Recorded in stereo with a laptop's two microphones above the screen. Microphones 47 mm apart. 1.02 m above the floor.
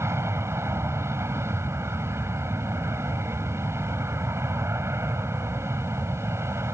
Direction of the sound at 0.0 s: 70° right (ahead or behind).